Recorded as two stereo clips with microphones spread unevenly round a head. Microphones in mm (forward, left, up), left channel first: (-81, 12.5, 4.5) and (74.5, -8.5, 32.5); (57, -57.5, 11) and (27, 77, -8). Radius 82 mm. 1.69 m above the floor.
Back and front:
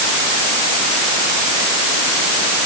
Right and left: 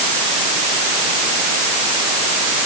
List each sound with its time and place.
Only background noise.